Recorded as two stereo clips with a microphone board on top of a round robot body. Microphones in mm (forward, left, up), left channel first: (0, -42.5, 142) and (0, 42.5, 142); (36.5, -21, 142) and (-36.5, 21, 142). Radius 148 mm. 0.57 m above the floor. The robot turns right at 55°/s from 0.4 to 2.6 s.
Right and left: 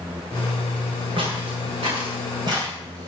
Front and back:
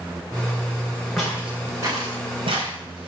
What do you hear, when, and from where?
1.2 s footsteps: 55° left, 8.5 m; by 3.1 s 135° left, 6 m